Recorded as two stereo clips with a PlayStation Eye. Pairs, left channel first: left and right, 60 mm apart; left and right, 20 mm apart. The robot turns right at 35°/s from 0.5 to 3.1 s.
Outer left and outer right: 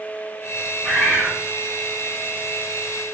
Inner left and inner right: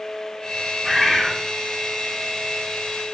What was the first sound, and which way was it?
A bird, 10° left (ahead or behind).